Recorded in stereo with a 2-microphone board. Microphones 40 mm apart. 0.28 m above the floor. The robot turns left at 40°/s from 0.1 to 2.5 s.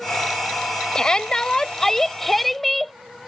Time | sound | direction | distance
0.9 | a shout | 20° left (ahead or behind) | ?